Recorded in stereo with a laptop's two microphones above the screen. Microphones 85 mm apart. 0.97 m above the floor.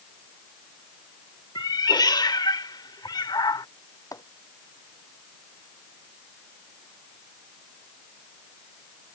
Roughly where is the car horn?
I don't hear a car horn.